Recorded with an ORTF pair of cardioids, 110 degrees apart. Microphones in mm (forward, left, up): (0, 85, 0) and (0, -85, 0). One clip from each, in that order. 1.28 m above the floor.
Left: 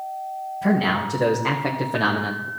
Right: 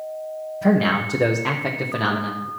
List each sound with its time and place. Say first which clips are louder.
0.6 s a man speaking: right 2 dB; 20° right, 1.8 m; by 2.5 s 20° left, 1.2 m